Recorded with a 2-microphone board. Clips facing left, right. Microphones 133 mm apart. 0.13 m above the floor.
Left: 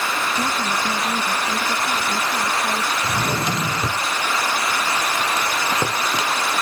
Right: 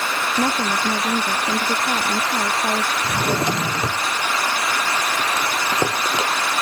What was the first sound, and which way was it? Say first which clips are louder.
A woman speaking: right 2 dB; 35° right (ahead or behind).